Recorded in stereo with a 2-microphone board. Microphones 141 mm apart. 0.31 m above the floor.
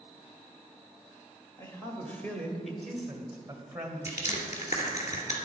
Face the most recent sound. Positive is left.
turn(degrees=55)  # may be behind; listen again after turning